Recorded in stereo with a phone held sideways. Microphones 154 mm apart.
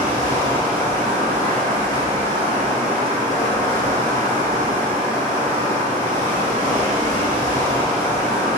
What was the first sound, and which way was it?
Running water, 25° left (ahead or behind).